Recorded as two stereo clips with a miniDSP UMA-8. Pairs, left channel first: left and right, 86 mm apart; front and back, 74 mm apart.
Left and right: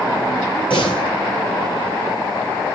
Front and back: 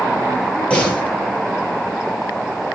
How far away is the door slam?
About 8 m.